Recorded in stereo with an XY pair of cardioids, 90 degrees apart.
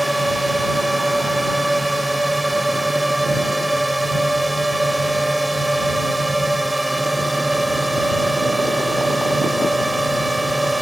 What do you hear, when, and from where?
0.0 s a drone: 10° right